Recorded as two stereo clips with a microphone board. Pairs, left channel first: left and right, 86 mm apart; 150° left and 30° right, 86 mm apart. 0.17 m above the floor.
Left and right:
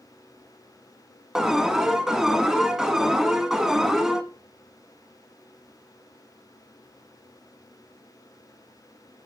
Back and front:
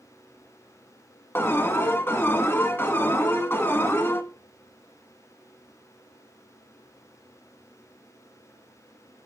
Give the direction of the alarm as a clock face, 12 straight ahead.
6 o'clock.